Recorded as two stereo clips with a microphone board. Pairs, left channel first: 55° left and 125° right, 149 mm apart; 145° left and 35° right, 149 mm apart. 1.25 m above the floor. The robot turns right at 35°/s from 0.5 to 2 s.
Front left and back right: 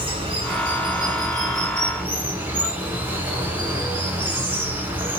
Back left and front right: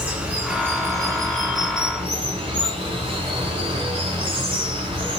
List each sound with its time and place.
0.0 s running water: 110° right, 1.4 m; by 5.2 s 55° right, 1.4 m